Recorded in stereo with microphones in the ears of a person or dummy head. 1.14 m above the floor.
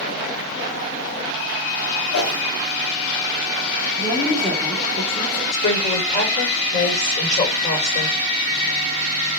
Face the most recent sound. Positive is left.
turn(degrees=40)  # may be behind; listen again after turning